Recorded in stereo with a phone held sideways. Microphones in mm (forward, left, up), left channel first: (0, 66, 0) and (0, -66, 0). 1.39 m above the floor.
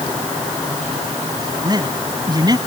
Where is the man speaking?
30° right (ahead or behind).